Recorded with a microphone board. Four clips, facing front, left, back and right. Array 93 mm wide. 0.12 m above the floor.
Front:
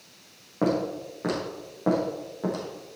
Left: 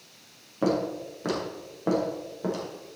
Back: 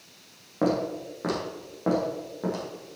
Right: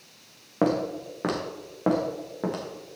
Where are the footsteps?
90° right, 4 m; by 3.0 s 95° right, 5.5 m.